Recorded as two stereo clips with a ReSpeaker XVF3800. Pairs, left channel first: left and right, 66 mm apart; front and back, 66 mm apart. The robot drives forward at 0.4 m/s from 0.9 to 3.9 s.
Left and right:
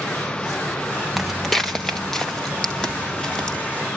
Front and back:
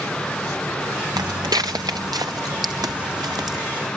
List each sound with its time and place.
1.2 s footsteps: 175° right, 0.8 m; by 3.6 s 170° left, 3 m